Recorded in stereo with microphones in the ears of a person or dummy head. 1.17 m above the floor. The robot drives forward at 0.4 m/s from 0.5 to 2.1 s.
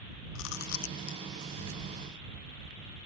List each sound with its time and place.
0.3 s chewing: 70° left (ahead or behind); by 1.2 s 65° left (ahead or behind)